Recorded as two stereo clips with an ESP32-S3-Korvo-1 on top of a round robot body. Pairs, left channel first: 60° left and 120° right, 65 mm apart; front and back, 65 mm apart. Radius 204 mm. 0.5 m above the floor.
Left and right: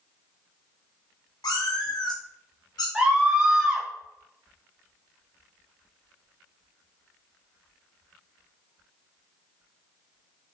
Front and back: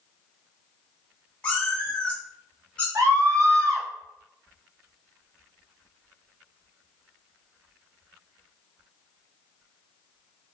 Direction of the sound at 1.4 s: 75° left.